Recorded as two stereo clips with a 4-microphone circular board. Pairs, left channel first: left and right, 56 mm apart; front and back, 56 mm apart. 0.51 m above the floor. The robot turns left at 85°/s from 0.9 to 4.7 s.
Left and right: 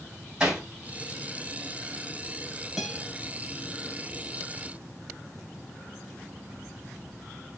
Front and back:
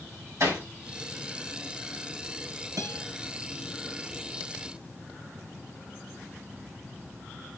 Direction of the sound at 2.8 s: 170° right.